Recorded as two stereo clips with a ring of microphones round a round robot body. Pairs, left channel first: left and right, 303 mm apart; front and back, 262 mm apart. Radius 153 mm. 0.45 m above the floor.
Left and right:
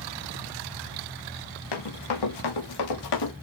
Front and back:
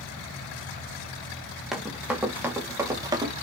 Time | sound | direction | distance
1.7 | running footsteps | 90° left | 6 m